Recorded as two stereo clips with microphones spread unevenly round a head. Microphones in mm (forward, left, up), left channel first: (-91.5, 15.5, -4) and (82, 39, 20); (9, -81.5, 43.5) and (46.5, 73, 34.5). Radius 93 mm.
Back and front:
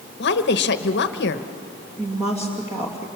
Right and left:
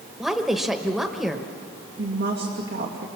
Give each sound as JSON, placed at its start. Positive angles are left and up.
{"t": 0.2, "sound": "a woman speaking", "azimuth_deg": 165, "distance_m": 1.1}
{"t": 2.0, "sound": "a woman speaking", "azimuth_deg": 80, "distance_m": 2.5}